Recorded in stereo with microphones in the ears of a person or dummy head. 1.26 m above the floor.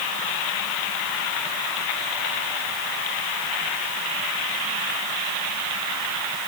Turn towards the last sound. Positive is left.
No sound to turn to.